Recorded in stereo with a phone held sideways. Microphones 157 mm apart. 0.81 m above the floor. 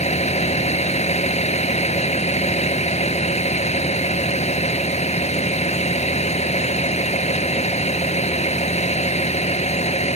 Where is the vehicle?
45° left (ahead or behind).